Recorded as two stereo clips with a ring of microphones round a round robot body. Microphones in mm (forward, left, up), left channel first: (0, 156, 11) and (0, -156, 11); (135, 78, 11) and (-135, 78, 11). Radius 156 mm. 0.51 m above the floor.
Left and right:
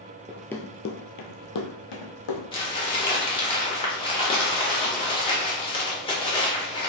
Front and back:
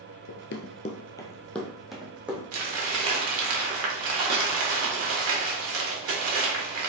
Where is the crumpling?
160° left, 1.3 m.